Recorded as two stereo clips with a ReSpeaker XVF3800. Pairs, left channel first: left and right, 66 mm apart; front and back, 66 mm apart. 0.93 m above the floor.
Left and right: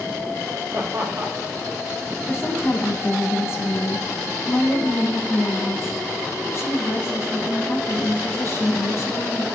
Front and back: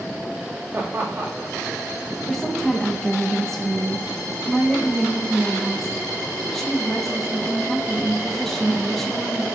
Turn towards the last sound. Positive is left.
turn(degrees=80)